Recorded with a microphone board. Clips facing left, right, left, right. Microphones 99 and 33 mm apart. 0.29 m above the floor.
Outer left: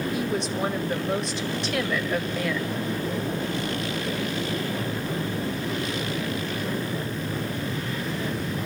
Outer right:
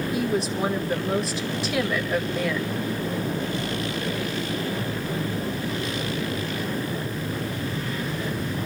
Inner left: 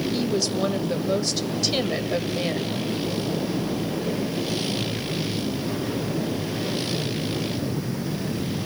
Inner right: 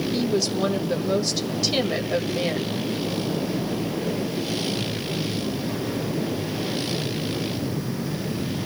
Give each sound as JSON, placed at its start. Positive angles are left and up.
{"t": 0.1, "sound": "a woman speaking", "side_deg": -5, "distance_m": 1.0}